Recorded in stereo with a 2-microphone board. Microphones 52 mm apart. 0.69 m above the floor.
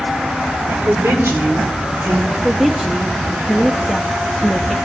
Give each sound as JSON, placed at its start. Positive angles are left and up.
{"t": 0.7, "sound": "a woman speaking", "side_deg": -55, "distance_m": 2.5}
{"t": 2.3, "sound": "a woman speaking", "side_deg": -5, "distance_m": 0.6}